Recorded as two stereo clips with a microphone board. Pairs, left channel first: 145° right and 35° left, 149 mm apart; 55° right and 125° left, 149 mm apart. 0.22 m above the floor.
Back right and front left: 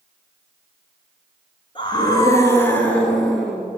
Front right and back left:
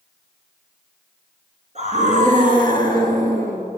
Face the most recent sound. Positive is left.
turn(degrees=120)